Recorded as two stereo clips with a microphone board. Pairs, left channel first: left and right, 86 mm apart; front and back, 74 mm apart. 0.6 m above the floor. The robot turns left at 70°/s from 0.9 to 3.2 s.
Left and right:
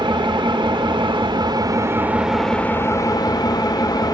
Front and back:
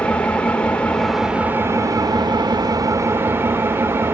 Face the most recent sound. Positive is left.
turn(degrees=125)